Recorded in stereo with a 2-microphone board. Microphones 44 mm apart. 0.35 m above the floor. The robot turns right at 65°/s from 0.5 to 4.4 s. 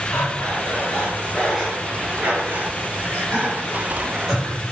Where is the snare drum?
No snare drum in this recording.